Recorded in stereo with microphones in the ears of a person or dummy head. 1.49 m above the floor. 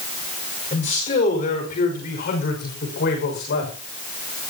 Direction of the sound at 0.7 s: 40° left (ahead or behind).